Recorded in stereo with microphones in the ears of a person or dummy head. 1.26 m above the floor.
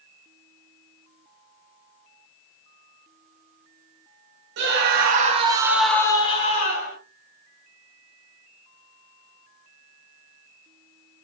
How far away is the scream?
About 1.2 m.